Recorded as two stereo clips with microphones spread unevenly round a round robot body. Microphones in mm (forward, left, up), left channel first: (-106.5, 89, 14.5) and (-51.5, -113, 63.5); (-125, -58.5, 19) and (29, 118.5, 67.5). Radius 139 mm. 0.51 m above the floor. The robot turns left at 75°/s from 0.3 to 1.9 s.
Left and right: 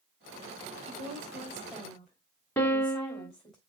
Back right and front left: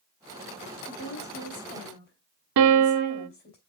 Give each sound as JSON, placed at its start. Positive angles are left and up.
{"t": 0.9, "sound": "a woman speaking", "azimuth_deg": -90, "distance_m": 3.5}
{"t": 2.6, "sound": "a piano", "azimuth_deg": 30, "distance_m": 0.6}